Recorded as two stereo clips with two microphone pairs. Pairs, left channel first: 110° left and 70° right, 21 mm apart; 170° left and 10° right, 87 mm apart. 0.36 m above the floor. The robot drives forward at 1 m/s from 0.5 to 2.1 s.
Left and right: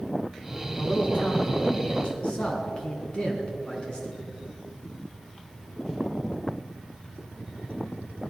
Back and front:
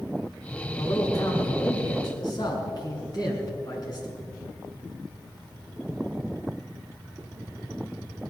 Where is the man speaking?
120° left, 3 m; by 4.1 s 135° left, 4 m.